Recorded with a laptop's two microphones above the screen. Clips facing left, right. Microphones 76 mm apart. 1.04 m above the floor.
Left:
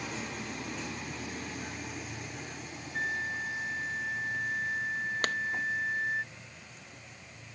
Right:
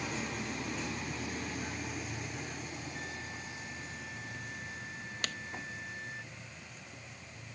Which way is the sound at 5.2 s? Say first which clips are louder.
Left 7 dB; 45° left (ahead or behind).